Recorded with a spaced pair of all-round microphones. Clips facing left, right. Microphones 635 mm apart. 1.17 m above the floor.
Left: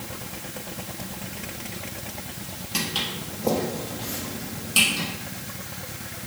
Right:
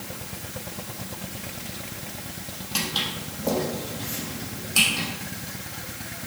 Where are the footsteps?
45° left (ahead or behind), 2 m; by 5.1 s 55° left (ahead or behind), 3.5 m.